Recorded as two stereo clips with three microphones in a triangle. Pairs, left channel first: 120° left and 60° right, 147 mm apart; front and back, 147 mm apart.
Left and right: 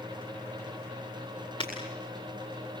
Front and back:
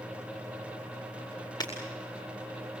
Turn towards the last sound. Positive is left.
turn(degrees=65)